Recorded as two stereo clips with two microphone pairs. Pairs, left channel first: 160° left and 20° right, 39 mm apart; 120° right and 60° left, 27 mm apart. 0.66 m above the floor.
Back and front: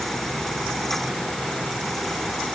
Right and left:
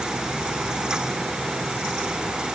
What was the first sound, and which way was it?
Only background noise.